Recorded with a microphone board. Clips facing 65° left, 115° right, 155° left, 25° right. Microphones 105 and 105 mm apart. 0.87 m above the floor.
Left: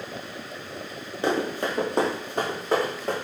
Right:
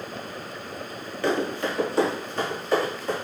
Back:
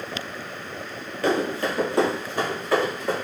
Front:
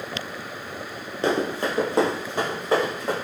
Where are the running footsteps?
20° left, 1.0 m; by 3.1 s 45° left, 3 m.